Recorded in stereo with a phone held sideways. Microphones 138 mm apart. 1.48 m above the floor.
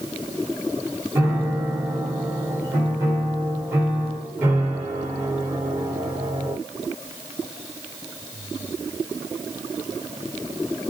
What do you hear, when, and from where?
1.1 s a piano: 20° right (ahead or behind), 1.2 m